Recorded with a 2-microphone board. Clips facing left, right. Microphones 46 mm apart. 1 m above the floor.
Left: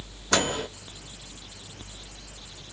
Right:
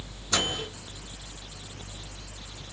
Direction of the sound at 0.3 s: 80° left.